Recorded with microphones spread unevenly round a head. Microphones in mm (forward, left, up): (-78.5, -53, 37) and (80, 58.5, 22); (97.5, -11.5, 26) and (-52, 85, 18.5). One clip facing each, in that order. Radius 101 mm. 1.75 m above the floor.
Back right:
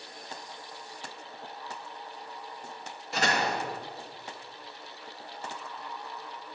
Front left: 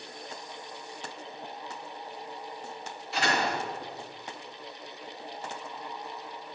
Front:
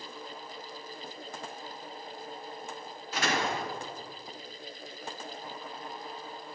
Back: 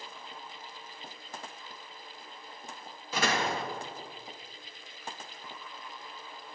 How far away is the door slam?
About 2.5 m.